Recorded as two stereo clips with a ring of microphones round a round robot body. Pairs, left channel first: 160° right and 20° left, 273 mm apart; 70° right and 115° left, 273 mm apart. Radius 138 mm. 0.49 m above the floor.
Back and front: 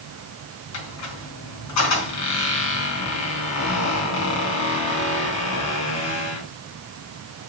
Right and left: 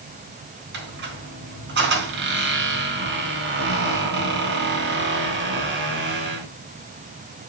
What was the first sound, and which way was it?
A squeak, 165° left.